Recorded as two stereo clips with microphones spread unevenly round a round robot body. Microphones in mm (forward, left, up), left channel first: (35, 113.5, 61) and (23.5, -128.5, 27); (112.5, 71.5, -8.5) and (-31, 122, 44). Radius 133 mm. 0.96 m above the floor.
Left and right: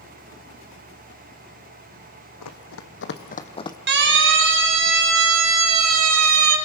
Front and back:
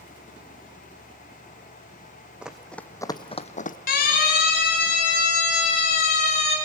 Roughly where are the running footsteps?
Left.